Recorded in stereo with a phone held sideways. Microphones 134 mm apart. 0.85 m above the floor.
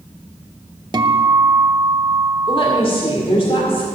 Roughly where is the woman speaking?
Left.